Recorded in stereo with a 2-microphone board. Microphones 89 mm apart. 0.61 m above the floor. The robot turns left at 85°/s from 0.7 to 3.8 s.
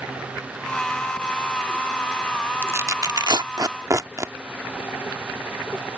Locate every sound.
2.6 s tearing paper: 20° right (ahead or behind); by 4.3 s 40° right (ahead or behind)